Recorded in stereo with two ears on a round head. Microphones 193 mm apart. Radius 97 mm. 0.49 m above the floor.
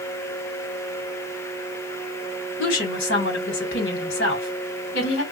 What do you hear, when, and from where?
2.6 s a woman speaking: 55° left (ahead or behind), 1.5 m